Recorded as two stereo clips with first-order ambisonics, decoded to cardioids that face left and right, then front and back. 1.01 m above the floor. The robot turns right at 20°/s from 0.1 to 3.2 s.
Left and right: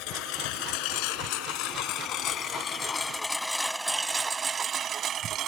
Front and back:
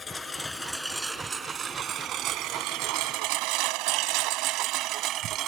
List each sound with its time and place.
0.0 s a lawn mower: 75° left; by 5.5 s 135° right